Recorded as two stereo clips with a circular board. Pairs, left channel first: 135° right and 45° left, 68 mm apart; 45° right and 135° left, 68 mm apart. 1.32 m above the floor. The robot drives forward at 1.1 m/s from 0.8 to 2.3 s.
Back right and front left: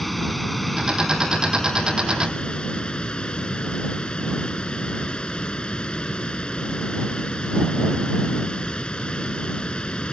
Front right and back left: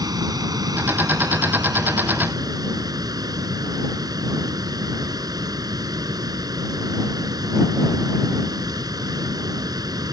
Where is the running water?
135° left; by 10.1 s 150° left.